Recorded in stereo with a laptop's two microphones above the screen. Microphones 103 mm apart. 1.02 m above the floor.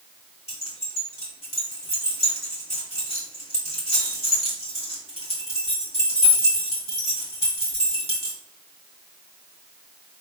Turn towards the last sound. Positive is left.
turn(degrees=80)